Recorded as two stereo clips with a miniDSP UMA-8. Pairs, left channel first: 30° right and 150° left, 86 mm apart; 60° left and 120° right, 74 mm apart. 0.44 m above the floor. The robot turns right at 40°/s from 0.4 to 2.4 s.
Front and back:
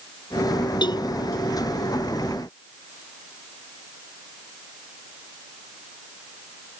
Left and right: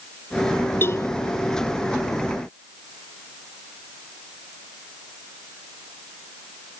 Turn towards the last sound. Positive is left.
turn(degrees=65)